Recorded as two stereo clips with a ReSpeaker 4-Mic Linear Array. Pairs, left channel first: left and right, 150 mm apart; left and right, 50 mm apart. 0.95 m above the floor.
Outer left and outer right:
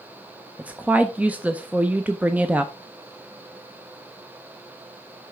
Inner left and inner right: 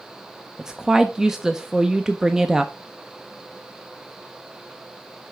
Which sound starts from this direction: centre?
A woman speaking, at 0.6 s.